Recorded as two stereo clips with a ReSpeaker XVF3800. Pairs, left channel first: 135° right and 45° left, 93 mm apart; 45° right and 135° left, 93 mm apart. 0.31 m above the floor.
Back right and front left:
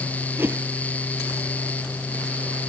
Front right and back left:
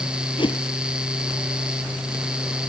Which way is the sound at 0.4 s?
25° right.